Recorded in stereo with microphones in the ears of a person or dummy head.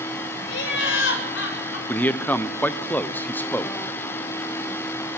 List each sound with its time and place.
0.5 s laughter: 80° left, 7.5 m; by 1.8 s 85° left, 6.5 m
1.9 s a man speaking: 5° left (ahead or behind), 1.0 m